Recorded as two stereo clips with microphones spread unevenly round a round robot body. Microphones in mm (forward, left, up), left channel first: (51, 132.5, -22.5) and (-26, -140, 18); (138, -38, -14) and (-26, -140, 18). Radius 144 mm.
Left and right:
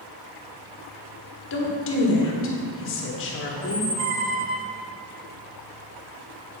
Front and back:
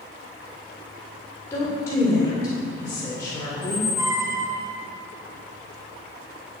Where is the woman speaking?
105° left, 1.6 m.